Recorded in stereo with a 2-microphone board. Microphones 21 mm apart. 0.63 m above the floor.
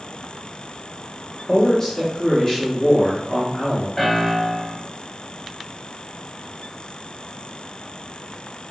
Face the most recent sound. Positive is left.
turn(degrees=25)  # may be behind; listen again after turning